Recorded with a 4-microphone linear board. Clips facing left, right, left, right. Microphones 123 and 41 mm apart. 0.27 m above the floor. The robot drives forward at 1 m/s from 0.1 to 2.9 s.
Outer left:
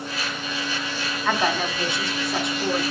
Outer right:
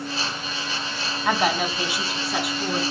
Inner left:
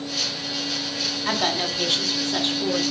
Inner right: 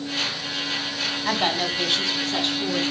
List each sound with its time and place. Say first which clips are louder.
1.2 s a woman speaking: outer right 1 dB, even; 10° right (ahead or behind), 2.5 m